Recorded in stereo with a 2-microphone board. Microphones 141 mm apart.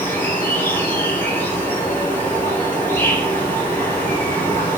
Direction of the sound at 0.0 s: 15° left (ahead or behind).